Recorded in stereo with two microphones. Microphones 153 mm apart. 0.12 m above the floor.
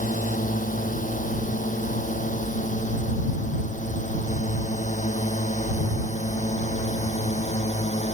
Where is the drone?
60° left (ahead or behind); by 8.1 s 50° left (ahead or behind).